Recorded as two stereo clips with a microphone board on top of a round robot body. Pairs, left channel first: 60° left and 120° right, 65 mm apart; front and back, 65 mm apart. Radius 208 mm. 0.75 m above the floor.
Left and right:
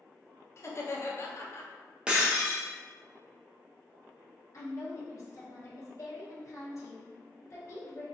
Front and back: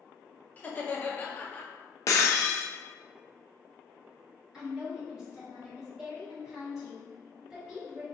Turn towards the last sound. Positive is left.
turn(degrees=100)